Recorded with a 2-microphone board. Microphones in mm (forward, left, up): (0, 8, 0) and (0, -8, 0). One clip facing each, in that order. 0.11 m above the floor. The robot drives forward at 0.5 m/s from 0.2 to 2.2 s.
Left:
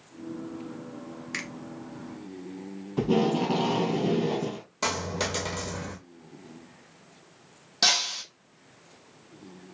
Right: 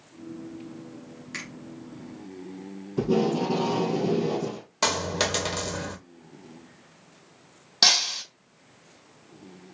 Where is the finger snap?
15° left (ahead or behind), 1.4 m.